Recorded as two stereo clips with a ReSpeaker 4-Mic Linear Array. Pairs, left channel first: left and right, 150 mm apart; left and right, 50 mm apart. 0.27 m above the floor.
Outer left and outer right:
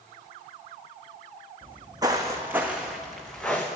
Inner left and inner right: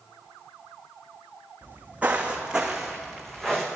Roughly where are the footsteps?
Right.